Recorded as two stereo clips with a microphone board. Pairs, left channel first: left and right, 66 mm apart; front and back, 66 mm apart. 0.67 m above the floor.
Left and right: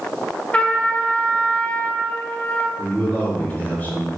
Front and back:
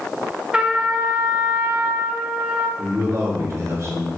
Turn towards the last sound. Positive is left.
turn(degrees=150)